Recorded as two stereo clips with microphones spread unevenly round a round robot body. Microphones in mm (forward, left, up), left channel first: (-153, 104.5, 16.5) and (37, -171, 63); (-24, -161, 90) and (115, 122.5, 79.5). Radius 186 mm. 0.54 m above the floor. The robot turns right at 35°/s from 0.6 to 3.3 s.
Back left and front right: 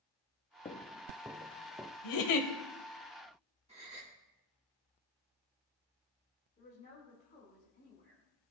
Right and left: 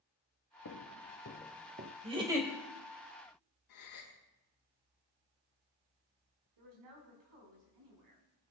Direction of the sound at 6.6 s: 55° left.